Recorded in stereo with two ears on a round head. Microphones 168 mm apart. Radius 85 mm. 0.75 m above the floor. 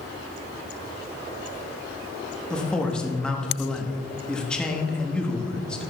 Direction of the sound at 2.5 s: 5° left (ahead or behind).